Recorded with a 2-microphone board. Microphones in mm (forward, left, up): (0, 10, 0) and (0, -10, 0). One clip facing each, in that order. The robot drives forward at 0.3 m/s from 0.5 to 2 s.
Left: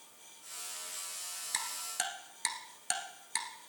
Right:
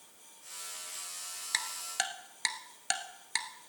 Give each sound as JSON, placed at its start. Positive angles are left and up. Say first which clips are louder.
{"t": 1.5, "sound": "ticking", "louder": "right 4 dB", "side_deg": -30, "distance_m": 1.0}